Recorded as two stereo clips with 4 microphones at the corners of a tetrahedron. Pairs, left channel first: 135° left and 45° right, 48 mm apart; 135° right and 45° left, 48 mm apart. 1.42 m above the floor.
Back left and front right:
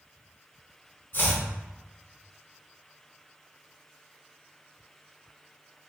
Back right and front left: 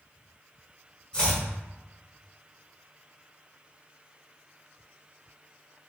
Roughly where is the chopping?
Behind.